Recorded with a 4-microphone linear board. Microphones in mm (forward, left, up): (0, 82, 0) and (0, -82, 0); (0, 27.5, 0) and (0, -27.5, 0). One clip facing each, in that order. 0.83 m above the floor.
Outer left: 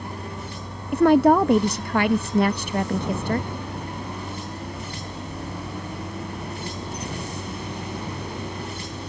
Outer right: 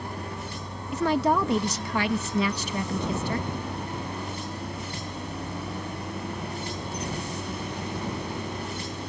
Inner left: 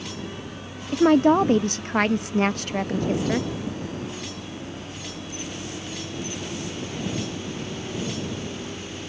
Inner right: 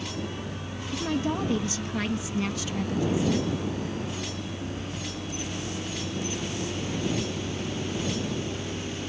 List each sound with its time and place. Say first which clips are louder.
0.9 s a woman speaking: outer left 8 dB, inner left 12 dB; 55° left (ahead or behind)